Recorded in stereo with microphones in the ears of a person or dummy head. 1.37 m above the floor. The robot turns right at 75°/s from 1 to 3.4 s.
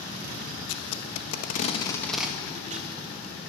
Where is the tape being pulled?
75° left (ahead or behind), 1.1 m; by 2.9 s 55° right (ahead or behind), 1.1 m.